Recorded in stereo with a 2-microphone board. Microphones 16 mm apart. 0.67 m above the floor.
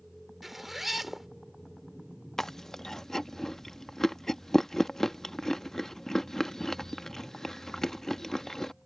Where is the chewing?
30° left (ahead or behind).